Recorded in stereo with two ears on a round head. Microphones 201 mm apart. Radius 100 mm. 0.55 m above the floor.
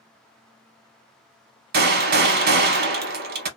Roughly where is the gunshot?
Right.